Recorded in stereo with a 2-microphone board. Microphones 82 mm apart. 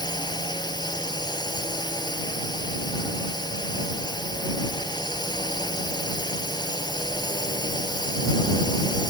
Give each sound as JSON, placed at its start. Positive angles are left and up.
{"t": 0.0, "sound": "a drone", "side_deg": 60}